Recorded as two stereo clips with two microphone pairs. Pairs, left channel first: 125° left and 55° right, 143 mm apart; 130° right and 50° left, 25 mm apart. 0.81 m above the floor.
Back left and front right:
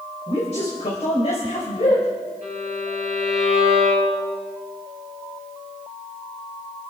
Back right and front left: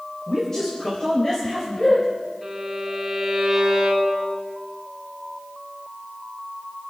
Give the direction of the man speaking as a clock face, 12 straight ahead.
7 o'clock.